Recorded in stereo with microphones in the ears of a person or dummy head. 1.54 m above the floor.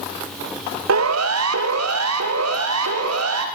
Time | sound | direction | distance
0.9 | a siren | 75° right (ahead or behind) | 3 m